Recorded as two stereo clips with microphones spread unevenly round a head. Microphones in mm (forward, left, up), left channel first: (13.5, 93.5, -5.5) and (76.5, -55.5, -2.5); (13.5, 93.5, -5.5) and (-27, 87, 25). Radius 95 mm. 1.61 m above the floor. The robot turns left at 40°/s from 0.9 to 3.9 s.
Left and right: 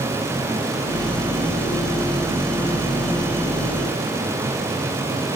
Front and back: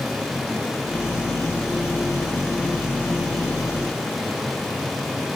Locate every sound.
Only background noise.